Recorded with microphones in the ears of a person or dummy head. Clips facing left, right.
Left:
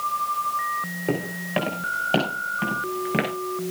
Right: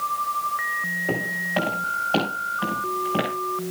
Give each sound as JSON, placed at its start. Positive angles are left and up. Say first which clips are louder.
{"t": 1.1, "sound": "footsteps", "louder": "left 2 dB", "side_deg": 40, "distance_m": 5.0}